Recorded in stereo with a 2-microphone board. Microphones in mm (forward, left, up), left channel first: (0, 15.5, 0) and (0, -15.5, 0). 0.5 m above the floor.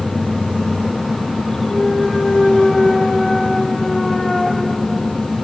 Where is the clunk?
5° left (ahead or behind), 0.7 m.